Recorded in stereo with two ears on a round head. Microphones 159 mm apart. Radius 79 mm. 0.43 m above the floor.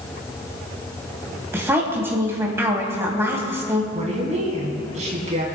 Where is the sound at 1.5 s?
15° right (ahead or behind), 3.5 m.